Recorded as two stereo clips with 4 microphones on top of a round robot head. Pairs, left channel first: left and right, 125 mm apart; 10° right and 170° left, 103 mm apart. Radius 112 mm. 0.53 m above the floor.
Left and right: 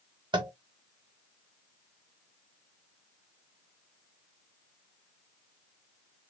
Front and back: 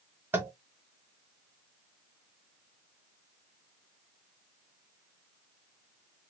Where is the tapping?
125° right, 1.3 m.